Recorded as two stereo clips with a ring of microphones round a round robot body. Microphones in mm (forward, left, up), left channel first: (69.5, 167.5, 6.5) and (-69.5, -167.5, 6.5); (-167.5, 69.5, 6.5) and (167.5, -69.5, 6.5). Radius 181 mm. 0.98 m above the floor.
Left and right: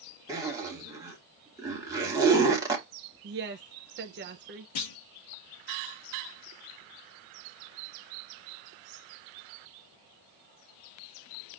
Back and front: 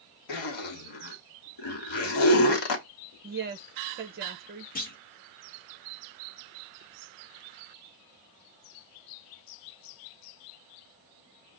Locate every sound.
0.3 s a zipper: 170° left, 1.2 m
3.2 s a woman speaking: 70° right, 0.5 m
4.8 s a clunk: 90° left, 0.8 m